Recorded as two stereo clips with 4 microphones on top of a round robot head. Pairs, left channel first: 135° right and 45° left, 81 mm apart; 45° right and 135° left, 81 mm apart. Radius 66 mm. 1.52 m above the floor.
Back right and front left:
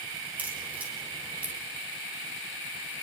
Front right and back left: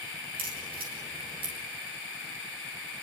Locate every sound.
0.4 s a crack: 120° left, 7 m